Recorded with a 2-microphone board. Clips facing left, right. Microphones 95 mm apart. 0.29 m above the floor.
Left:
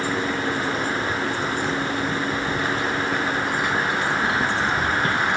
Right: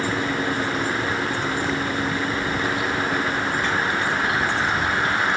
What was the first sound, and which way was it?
Keys jangling, 15° right (ahead or behind).